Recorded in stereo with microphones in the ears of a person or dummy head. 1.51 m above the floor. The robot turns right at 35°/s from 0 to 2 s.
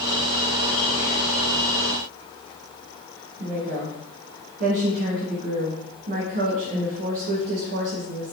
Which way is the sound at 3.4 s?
60° right (ahead or behind).